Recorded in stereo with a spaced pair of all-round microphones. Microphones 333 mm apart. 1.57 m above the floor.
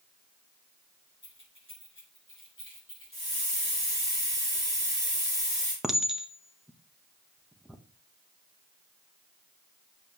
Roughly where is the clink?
Centre.